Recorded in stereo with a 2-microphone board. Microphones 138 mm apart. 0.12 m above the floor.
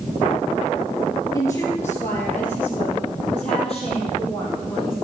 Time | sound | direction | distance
1.3 | a woman speaking | 25° left (ahead or behind) | 2 m